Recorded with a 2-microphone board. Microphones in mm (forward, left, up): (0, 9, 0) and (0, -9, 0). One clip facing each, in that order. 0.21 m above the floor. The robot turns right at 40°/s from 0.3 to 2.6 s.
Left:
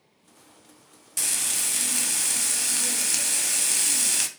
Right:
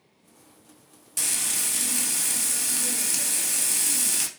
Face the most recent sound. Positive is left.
turn(degrees=20)  # may be behind; listen again after turning